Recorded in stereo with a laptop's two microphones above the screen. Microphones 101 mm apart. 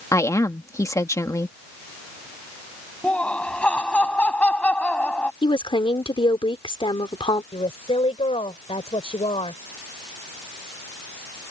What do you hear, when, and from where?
0.1 s a woman speaking: 30° left (ahead or behind)
3.0 s laughter: 10° left (ahead or behind)
5.4 s a woman speaking: 60° left (ahead or behind)
7.5 s a woman speaking: 75° left (ahead or behind)